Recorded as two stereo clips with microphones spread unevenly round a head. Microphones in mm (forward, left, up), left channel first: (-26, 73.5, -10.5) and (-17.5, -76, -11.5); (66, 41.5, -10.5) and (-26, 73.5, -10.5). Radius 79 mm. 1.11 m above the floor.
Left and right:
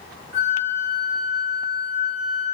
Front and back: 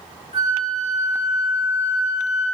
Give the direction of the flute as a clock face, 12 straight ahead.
1 o'clock.